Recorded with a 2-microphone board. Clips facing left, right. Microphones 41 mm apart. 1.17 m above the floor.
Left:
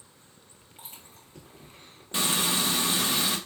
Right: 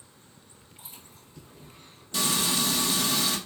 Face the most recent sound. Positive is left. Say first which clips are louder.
# even
turn(degrees=30)  # may be behind; listen again after turning